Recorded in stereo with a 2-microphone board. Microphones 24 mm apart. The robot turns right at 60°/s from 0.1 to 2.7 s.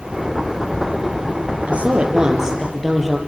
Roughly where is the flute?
No flute in this recording.